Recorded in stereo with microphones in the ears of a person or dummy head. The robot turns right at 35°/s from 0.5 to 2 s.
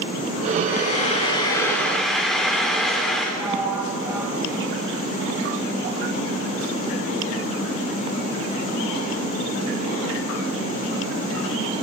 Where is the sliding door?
15° right (ahead or behind), 4 m.